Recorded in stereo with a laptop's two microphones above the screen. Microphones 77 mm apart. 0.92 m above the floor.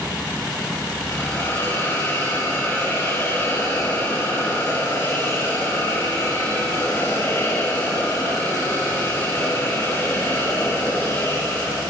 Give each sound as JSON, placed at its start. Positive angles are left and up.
{"t": 1.1, "sound": "a hiss", "side_deg": 35, "distance_m": 9.5}